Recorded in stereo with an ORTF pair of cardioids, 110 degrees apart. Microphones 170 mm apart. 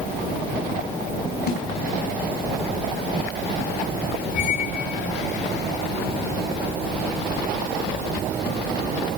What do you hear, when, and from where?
1.5 s a snare drum: 60° left, 3.5 m
4.3 s a squeak: 65° left, 3.5 m